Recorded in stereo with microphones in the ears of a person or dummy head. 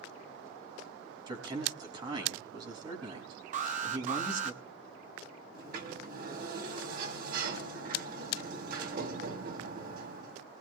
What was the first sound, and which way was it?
A man speaking, 30° right (ahead or behind).